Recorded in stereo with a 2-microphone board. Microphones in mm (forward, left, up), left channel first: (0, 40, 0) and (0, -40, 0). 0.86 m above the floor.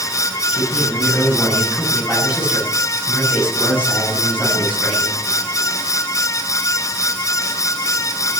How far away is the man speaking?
About 8.5 m.